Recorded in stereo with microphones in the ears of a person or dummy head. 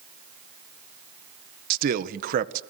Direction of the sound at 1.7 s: 50° right (ahead or behind).